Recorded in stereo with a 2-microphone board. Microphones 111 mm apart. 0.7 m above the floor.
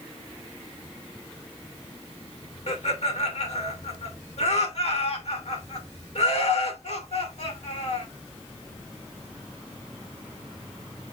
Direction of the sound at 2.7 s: 75° left (ahead or behind).